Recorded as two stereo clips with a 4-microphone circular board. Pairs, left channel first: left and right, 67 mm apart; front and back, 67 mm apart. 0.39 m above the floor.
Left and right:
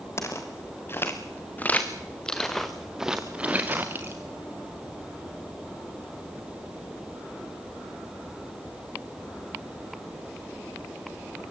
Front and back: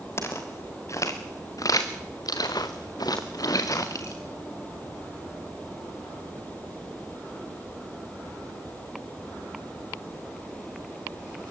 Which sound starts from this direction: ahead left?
Footsteps, at 0.2 s.